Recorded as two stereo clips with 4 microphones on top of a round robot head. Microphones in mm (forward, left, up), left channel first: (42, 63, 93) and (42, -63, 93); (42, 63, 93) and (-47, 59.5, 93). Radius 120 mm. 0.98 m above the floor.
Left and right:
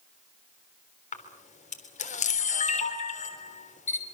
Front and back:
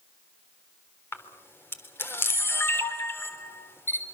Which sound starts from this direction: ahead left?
A camera shutter, at 1.1 s.